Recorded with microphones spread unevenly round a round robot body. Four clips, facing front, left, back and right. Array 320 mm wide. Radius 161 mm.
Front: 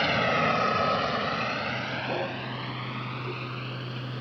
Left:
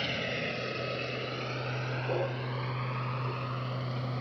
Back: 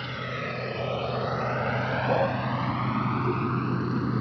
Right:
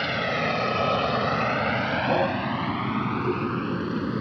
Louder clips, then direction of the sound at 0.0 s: Right 9 dB, front 9 dB; 30° right.